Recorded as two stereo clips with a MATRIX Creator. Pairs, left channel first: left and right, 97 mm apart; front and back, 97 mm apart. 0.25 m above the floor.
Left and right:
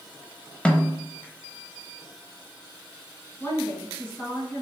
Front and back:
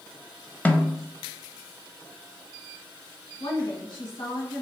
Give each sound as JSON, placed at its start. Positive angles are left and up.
{"t": 0.7, "sound": "a snare drum", "azimuth_deg": 40, "distance_m": 0.6}
{"t": 3.4, "sound": "a woman speaking", "azimuth_deg": 20, "distance_m": 2.5}